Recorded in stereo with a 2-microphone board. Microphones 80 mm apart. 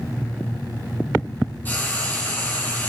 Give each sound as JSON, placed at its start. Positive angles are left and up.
{"t": 1.6, "sound": "frying", "side_deg": 25, "distance_m": 2.0}